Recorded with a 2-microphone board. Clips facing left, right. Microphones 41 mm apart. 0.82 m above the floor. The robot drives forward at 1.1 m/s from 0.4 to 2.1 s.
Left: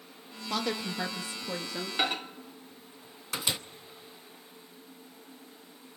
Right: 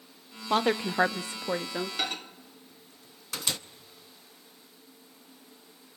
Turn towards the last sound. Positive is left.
turn(degrees=15)  # may be behind; listen again after turning